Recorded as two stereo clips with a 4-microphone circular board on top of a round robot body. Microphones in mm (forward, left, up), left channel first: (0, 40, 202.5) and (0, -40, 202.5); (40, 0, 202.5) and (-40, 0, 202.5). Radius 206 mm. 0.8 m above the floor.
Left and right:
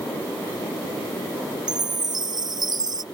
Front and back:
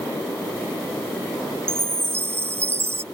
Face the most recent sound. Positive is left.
turn(degrees=-120)